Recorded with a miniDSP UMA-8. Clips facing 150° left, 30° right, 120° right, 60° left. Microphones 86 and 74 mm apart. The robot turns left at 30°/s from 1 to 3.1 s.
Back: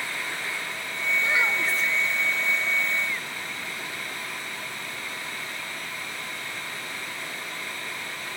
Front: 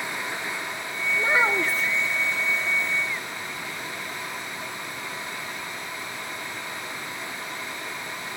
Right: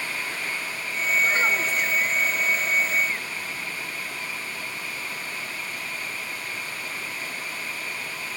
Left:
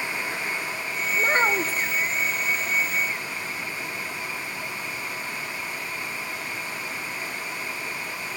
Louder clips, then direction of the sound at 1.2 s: Front 4 dB, left 2 dB; 25° left.